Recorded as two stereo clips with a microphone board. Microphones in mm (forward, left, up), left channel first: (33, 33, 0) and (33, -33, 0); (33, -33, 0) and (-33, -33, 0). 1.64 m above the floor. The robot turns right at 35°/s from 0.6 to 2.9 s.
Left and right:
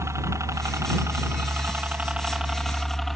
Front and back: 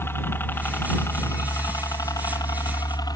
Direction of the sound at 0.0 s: 50° right.